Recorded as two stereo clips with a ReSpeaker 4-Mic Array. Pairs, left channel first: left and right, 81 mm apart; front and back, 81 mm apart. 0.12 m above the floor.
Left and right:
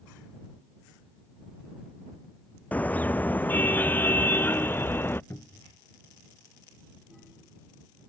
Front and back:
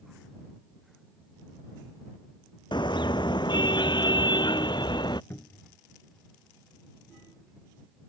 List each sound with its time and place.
2.7 s a car horn: 20° left; by 5.2 s 25° left
5.3 s a cupboard door: 50° left